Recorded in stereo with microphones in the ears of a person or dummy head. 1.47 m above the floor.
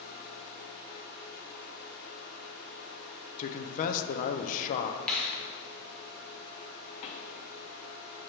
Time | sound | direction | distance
3.4 | a man speaking | 45° left (ahead or behind) | 0.6 m
5.1 | a finger snap | 5° left (ahead or behind) | 0.8 m
7.0 | a pop | 35° left (ahead or behind) | 0.8 m